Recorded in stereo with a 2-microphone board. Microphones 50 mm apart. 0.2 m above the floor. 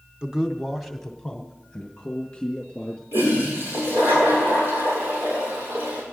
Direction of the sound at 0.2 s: 15° right (ahead or behind).